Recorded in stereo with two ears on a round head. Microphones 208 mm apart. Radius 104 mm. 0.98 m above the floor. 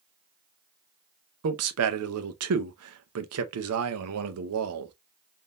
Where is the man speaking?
70° right (ahead or behind), 0.6 m.